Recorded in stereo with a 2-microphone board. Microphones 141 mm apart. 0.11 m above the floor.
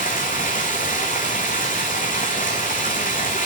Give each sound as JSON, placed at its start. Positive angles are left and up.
{"t": 0.0, "sound": "running water", "side_deg": 75, "distance_m": 1.8}